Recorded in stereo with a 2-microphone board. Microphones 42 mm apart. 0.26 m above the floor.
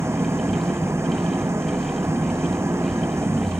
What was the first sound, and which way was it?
An engine running, 80° right.